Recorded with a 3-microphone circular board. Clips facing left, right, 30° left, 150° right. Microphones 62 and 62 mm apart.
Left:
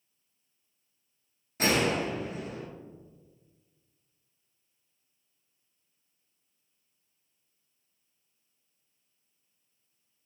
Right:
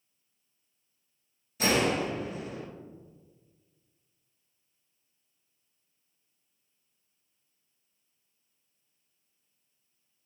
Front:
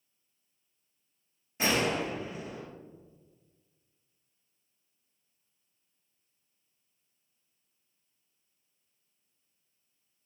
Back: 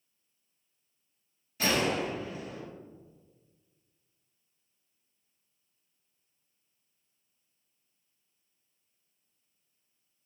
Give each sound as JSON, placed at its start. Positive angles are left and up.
{"t": 1.6, "sound": "a gunshot", "azimuth_deg": 80, "distance_m": 1.2}